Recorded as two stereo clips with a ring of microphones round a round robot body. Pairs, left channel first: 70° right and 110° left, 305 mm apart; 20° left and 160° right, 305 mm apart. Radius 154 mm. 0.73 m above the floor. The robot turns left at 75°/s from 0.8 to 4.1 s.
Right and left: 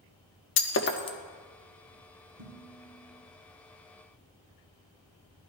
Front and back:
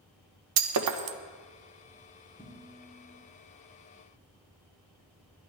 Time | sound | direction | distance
0.6 | breaking glass | 120° right | 0.6 m
2.4 | dishes clattering | 110° left | 3.5 m